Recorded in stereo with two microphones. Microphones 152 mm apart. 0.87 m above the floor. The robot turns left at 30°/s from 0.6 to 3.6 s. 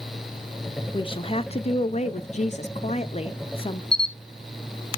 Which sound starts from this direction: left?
A camera shutter, at 3.9 s.